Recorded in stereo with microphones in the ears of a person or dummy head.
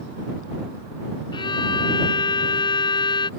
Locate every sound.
1.3 s a violin: 25° left (ahead or behind)